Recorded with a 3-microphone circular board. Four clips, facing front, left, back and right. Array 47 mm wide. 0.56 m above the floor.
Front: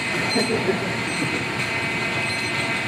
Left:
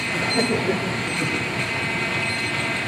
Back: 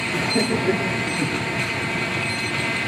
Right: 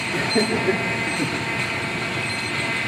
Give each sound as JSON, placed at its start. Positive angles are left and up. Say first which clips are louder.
{"t": 0.1, "sound": "laughter", "louder": "right 1 dB, even", "azimuth_deg": -115, "distance_m": 9.5}